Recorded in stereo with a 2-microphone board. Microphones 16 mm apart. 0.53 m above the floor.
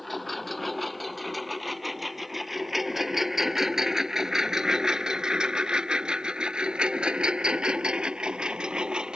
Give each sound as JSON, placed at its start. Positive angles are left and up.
{"t": 0.0, "sound": "a lawn mower", "side_deg": 5}